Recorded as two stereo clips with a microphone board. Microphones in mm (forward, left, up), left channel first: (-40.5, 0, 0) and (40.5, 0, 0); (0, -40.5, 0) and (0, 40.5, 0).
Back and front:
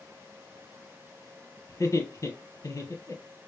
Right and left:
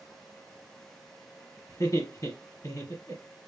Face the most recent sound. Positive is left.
turn(degrees=-135)